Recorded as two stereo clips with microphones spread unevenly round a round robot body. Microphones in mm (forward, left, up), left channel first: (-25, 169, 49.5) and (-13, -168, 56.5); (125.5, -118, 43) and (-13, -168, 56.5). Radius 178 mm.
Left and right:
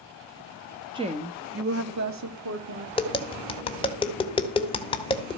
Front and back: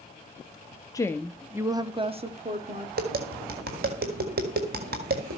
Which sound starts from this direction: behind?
Tapping, at 3.0 s.